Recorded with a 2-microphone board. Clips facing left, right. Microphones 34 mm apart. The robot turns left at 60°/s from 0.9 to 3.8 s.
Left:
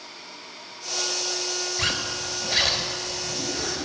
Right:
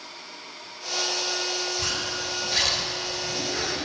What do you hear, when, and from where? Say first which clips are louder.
1.8 s a zipper: left 2 dB; 70° left, 0.7 m; by 3.8 s 50° right, 0.7 m